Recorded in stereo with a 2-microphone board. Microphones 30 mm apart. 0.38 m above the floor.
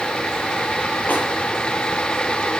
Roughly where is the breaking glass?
I don't hear breaking glass.